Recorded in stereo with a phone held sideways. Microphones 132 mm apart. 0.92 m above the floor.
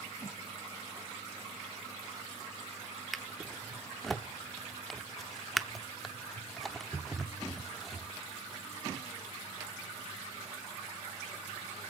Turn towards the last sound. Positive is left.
turn(degrees=0)  # may be behind; listen again after turning